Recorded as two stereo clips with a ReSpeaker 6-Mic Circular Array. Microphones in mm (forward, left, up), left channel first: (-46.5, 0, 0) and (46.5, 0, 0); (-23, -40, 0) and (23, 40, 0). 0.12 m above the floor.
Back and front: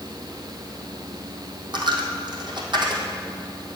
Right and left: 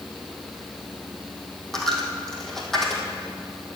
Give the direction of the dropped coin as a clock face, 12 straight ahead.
1 o'clock.